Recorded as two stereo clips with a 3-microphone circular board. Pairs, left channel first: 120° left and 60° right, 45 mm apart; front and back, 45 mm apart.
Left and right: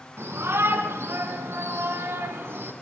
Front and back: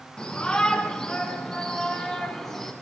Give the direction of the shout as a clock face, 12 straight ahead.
2 o'clock.